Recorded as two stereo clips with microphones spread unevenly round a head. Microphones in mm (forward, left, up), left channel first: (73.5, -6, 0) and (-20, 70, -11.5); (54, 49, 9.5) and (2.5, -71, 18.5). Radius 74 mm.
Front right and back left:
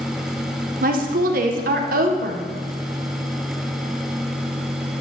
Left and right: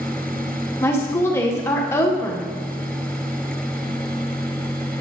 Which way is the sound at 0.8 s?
140° left.